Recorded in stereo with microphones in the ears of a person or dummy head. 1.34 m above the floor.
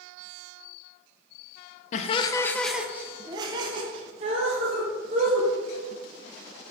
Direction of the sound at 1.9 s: 40° left (ahead or behind).